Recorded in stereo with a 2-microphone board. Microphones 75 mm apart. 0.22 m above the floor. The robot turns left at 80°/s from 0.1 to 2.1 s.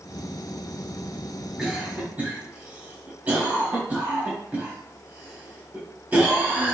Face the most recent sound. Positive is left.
turn(degrees=-20)  # may be behind; listen again after turning